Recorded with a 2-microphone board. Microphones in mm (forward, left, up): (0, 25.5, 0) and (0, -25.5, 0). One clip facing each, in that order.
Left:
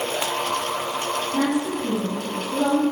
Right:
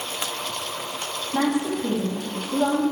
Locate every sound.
1.3 s a woman speaking: 30° right (ahead or behind), 5 m; by 2.8 s 10° right (ahead or behind), 5 m